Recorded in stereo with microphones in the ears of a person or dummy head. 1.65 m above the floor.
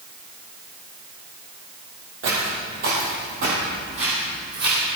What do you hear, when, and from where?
2.2 s footsteps: 50° right (ahead or behind), 2.5 m; by 4.9 s 25° right (ahead or behind), 3 m